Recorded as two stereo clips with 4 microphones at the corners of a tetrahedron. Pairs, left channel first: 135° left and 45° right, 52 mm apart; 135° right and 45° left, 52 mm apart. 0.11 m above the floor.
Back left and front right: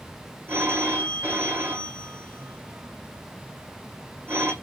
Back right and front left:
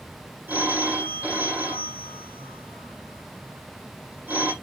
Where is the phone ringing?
10° right, 3 m.